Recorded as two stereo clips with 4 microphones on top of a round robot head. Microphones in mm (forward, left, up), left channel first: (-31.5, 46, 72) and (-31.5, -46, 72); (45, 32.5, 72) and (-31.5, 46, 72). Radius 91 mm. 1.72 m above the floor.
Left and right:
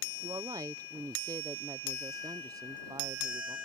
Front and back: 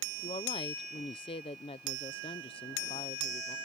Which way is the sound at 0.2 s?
30° right.